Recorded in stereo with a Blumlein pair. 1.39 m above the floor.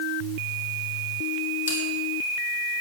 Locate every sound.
1.7 s a bell: 65° left, 4.5 m